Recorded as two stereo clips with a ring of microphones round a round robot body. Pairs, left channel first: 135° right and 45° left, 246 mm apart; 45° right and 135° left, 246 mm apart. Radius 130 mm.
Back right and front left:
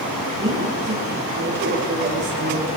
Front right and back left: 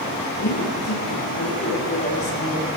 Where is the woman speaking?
20° right, 5.5 m; by 2.7 s 10° left, 4.5 m.